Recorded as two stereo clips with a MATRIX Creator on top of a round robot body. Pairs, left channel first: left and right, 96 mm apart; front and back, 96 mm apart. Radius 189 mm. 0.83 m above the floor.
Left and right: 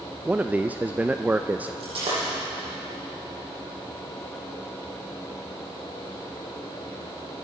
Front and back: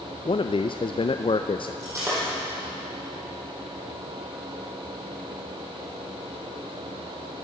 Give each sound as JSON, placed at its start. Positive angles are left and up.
{"t": 0.2, "sound": "a man speaking", "azimuth_deg": -15, "distance_m": 0.7}
{"t": 1.8, "sound": "breaking glass", "azimuth_deg": -120, "distance_m": 9.5}